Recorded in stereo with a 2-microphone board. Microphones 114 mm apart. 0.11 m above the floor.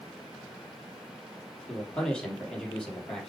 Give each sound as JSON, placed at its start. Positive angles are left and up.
{"t": 1.7, "sound": "a man speaking", "side_deg": 5, "distance_m": 3.0}